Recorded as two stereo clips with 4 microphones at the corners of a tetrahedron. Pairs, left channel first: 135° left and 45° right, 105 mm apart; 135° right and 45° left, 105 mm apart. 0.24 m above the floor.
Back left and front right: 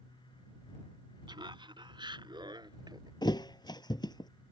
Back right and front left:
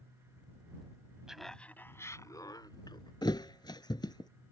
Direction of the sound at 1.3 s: 35° right.